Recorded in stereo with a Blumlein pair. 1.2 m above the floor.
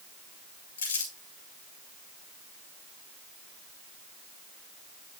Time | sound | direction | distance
0.8 | crumpling | 65° left | 5 m